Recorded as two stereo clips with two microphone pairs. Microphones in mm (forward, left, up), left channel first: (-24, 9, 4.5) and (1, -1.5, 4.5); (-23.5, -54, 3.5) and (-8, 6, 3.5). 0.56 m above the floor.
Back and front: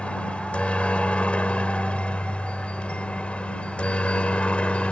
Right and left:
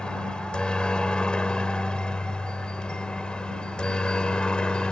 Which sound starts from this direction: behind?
A helicopter, at 0.0 s.